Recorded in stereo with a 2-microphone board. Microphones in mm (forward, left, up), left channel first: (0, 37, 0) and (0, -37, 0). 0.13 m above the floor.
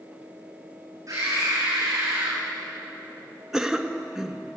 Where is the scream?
45° right (ahead or behind), 8 m.